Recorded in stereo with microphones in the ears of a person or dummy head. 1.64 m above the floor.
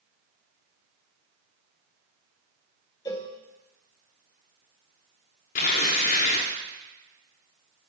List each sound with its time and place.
3.0 s a cowbell: 20° left (ahead or behind), 0.8 m
5.5 s tearing paper: 25° left (ahead or behind), 0.6 m